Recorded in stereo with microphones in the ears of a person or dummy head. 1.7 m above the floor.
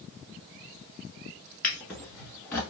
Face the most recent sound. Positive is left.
turn(degrees=5)  # may be behind; listen again after turning